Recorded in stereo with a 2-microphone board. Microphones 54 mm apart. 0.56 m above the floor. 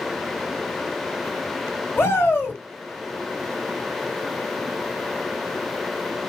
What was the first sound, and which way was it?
A shout, 50° left (ahead or behind).